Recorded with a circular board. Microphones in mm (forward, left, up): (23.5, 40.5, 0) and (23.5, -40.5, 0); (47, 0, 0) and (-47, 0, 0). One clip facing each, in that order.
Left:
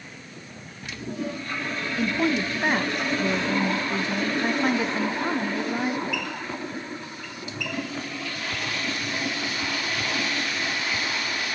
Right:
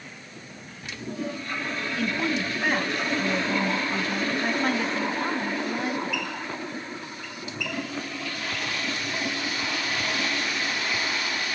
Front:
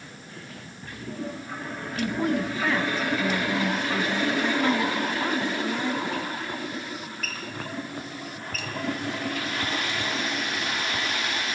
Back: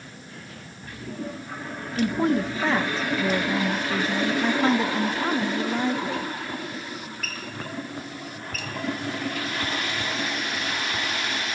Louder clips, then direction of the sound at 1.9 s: Left 4 dB, back 3 dB; 145° left.